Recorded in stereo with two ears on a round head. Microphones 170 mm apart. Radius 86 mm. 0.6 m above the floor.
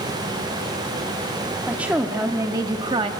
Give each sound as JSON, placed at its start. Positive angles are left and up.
{"t": 1.7, "sound": "a woman speaking", "side_deg": -5, "distance_m": 1.1}